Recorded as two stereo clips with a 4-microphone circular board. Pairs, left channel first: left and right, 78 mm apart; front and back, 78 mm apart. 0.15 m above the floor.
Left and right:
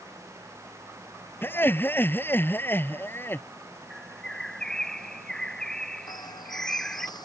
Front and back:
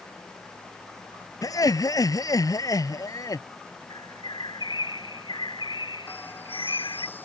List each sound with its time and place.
1.4 s laughter: 30° left
3.9 s a bird: 10° left
6.1 s a bird: 65° left